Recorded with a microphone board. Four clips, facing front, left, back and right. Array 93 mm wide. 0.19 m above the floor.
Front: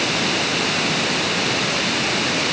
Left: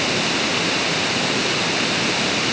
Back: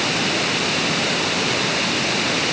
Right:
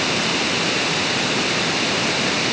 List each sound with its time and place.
Only background noise.